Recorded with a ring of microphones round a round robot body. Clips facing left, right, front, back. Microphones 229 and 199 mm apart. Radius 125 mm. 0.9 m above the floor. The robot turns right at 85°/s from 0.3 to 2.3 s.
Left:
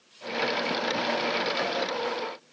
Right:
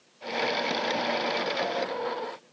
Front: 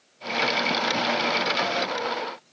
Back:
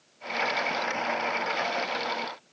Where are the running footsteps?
No running footsteps in this recording.